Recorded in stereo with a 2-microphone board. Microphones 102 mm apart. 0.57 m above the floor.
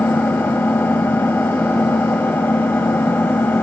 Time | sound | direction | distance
0.0 | an engine running | 20° left (ahead or behind) | 1.9 m